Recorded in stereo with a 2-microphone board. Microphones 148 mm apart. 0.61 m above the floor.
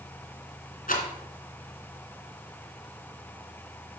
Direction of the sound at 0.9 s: 70° left (ahead or behind).